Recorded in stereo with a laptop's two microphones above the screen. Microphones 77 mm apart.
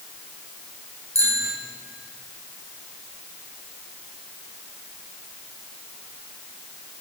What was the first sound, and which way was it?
A bicycle bell, 45° right (ahead or behind).